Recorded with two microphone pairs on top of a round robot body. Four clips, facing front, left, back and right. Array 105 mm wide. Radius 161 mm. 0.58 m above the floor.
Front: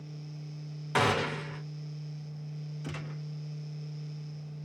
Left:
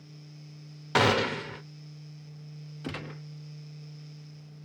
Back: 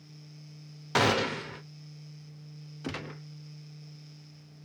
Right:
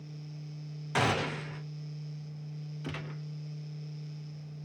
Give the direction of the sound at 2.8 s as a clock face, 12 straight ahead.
8 o'clock.